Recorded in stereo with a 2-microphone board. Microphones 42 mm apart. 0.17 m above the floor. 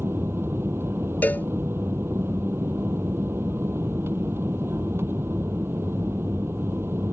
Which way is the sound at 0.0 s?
75° right (ahead or behind).